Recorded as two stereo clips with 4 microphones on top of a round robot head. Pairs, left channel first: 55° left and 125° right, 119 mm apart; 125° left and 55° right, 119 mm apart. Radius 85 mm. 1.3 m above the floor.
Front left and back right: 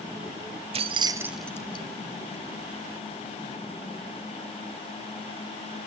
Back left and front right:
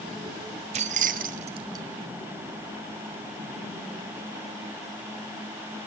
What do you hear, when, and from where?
0.7 s keys jangling: 90° right, 0.9 m; by 1.8 s 10° left, 0.6 m